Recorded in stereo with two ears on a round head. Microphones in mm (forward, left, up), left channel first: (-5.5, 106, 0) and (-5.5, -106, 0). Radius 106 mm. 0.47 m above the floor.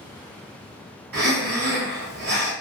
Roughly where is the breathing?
Right.